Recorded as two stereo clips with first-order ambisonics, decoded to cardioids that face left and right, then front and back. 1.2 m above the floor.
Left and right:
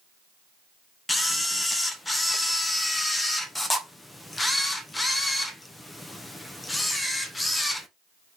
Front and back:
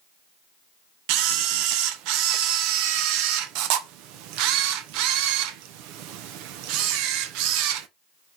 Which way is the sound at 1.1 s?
170° left.